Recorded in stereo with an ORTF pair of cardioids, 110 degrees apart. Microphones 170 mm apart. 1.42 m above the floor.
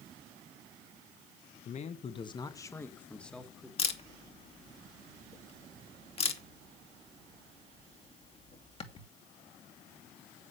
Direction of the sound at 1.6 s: 45° left.